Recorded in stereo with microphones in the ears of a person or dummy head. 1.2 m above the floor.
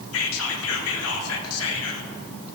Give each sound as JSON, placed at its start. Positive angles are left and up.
{"t": 0.1, "sound": "whispering", "side_deg": 80, "distance_m": 1.7}